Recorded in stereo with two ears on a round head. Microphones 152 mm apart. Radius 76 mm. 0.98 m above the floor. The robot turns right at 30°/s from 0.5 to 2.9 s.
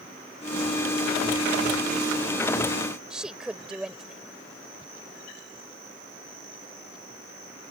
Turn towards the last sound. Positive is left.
turn(degrees=-5)  # may be behind; listen again after turning